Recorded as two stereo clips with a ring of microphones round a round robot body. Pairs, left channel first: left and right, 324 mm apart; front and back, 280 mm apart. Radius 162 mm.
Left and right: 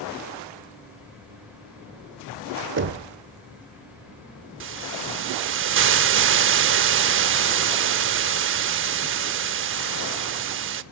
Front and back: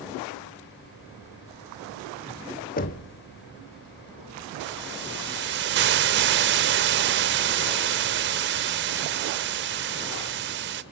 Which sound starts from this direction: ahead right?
Knocking, at 2.8 s.